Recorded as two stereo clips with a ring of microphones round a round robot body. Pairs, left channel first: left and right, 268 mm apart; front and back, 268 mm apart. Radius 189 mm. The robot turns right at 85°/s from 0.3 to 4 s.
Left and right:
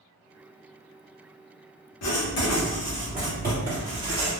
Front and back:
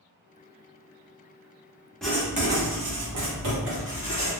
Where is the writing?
85° left, 1.1 m; by 4.3 s 105° right, 1.1 m.